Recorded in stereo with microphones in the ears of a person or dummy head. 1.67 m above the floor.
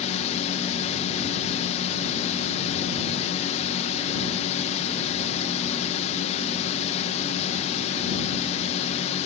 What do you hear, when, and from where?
0.0 s a drone: 45° left (ahead or behind)